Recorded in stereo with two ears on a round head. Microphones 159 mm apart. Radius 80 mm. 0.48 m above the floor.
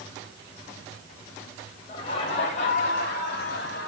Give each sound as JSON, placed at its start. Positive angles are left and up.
{"t": 1.9, "sound": "laughter", "side_deg": 30, "distance_m": 2.0}